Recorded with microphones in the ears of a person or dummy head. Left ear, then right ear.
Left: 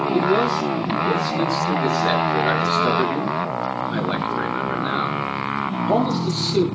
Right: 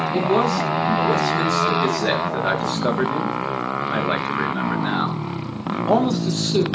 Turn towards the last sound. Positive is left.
turn(degrees=-20)  # may be behind; listen again after turning